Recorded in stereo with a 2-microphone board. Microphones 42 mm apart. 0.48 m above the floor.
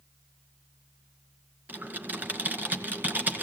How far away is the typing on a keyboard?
About 1.9 m.